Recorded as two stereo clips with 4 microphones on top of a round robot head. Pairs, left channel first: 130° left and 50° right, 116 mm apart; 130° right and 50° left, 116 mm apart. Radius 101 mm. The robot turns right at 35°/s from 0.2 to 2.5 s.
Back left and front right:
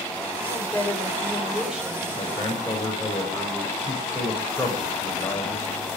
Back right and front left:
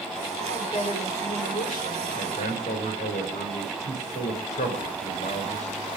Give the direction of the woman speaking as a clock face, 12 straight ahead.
6 o'clock.